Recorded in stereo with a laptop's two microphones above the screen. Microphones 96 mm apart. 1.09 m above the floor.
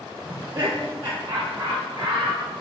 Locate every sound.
0.3 s laughter: 75° right (ahead or behind), 2.5 m; by 2.4 s 70° right (ahead or behind), 4 m